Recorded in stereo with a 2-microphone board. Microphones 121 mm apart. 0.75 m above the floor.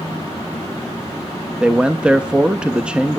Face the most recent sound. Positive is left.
turn(degrees=-10)  # may be behind; listen again after turning